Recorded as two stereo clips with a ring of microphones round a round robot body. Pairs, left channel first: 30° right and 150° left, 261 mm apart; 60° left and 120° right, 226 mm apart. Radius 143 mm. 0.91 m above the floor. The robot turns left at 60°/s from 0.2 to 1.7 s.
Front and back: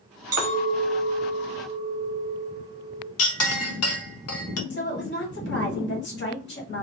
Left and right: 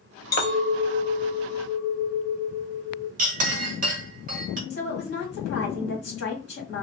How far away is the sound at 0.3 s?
About 1.1 m.